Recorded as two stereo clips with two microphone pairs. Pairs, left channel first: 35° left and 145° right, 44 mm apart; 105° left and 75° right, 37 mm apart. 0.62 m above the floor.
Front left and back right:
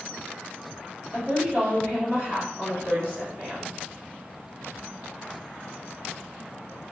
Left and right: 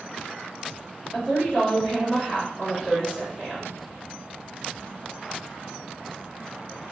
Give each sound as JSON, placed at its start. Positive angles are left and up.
{"t": 1.1, "sound": "a woman speaking", "azimuth_deg": 175, "distance_m": 1.8}